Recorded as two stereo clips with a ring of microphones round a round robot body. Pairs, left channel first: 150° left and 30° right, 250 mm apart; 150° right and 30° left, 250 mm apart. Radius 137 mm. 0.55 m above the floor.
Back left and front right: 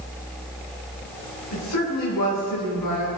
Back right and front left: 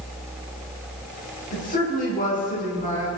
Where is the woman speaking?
150° left, 6.5 m.